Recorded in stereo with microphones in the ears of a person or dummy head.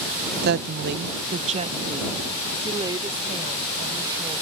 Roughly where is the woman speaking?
Right.